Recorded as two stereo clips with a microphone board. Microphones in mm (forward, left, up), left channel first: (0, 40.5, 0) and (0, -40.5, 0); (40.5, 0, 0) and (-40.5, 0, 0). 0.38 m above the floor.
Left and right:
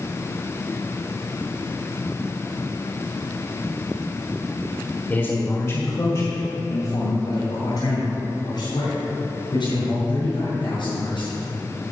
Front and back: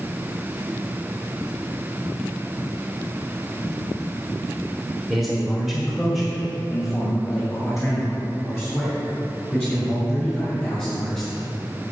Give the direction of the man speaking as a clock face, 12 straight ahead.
9 o'clock.